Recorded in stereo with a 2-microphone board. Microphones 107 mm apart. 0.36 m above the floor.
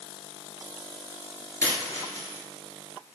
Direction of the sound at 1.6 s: 30° left (ahead or behind).